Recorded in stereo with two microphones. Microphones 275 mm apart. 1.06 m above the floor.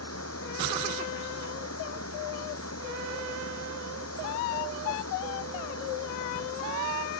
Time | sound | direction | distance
0.0 | running water | 60° left (ahead or behind) | ?